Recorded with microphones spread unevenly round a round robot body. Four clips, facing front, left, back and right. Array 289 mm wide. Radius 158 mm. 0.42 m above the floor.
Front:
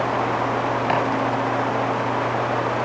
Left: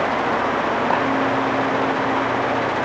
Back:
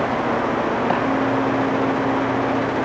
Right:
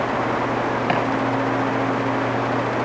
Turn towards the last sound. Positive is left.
turn(degrees=-80)